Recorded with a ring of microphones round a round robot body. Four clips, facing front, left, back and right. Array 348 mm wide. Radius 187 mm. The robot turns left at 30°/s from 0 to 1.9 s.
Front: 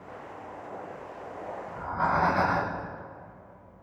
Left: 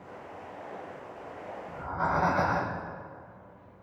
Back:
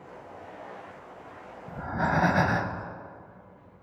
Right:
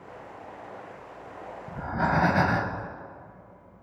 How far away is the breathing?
About 0.8 m.